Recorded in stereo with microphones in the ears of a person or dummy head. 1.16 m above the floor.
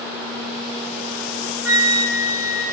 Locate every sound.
1.6 s a flute: 55° right (ahead or behind), 0.7 m